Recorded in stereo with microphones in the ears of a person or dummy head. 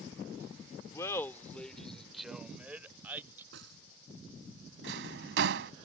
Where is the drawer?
75° right (ahead or behind).